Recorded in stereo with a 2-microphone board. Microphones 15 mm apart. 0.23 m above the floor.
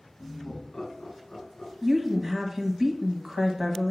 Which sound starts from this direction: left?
Laughter, at 0.2 s.